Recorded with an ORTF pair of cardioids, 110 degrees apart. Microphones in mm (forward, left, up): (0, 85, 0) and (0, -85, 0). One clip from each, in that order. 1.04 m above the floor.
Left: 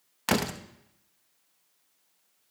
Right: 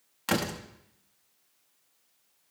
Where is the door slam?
25° left, 0.9 m.